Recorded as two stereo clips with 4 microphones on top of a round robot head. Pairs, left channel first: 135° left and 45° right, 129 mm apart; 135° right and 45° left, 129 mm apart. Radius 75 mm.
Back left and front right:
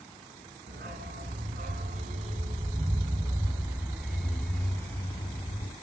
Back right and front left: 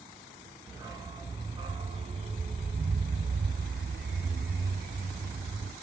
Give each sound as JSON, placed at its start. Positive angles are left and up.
{"t": 0.7, "sound": "a dog barking", "azimuth_deg": -25, "distance_m": 2.0}